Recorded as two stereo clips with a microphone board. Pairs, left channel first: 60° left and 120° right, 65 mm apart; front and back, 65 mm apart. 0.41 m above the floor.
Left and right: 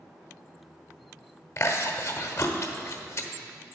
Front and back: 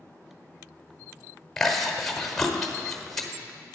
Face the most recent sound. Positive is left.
turn(degrees=80)